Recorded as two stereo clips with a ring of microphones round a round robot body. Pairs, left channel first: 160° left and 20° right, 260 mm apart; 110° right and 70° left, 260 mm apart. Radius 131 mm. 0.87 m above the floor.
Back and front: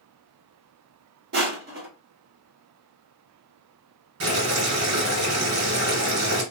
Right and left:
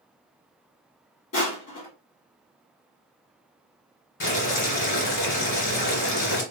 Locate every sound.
1.3 s crushing: 70° right, 2 m
4.2 s boiling: 60° right, 2.5 m